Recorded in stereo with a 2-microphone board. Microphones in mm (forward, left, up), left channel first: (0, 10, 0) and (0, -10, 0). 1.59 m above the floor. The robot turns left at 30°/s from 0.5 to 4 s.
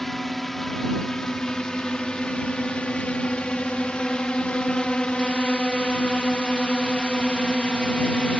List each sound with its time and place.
0.0 s a drone: 10° left (ahead or behind); by 8.4 s 65° left (ahead or behind)